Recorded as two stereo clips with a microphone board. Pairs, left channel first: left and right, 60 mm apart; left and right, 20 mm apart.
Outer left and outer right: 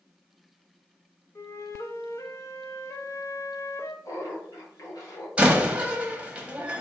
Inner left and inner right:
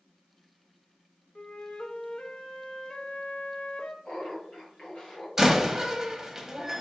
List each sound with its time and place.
1.4 s a flute: 50° left (ahead or behind), 0.6 m
4.0 s laughter: 70° left (ahead or behind), 1.1 m
5.4 s a door slam: 15° right (ahead or behind), 0.8 m